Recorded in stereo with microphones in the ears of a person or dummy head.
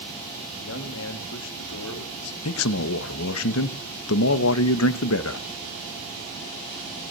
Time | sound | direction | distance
0.6 | a man speaking | 55° left (ahead or behind) | 1.7 m
2.5 | a man speaking | 70° left (ahead or behind) | 1.1 m